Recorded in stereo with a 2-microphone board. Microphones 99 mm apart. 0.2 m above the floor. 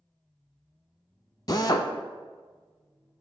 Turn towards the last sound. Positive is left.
turn(degrees=45)  # may be behind; listen again after turning